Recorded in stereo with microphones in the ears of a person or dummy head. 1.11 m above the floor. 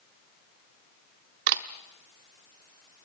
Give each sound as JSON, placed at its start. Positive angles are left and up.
{"t": 1.5, "sound": "a camera shutter", "side_deg": -55, "distance_m": 0.9}